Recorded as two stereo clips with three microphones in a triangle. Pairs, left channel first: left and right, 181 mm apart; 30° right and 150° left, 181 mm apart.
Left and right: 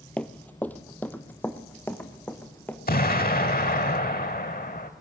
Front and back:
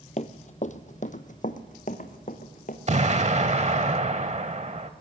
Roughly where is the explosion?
Left.